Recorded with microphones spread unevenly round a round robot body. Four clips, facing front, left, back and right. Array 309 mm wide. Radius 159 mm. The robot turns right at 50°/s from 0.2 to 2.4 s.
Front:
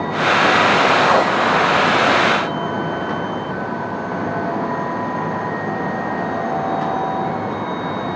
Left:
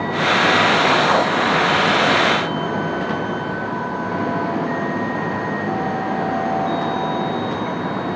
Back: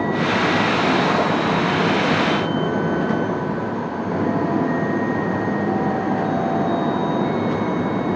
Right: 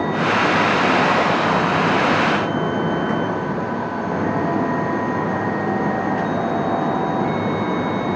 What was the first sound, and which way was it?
Only background noise.